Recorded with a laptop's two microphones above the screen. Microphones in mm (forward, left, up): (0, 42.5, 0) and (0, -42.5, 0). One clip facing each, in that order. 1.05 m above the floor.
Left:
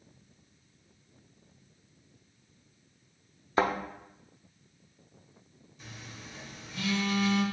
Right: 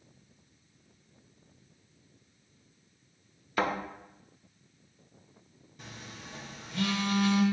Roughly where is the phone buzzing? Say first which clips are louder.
Right 1 dB; right.